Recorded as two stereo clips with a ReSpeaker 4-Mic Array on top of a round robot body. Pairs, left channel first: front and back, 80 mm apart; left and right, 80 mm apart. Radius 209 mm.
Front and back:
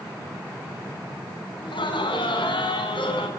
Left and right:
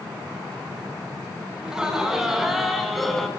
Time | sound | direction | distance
1.6 | laughter | 10° right | 6 m